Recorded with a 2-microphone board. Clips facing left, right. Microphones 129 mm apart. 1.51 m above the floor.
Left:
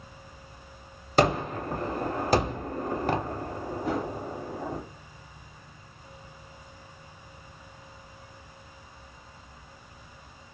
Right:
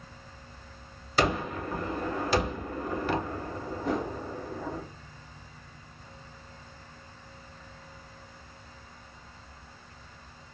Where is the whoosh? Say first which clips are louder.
Even; 5° left (ahead or behind), 1.2 m.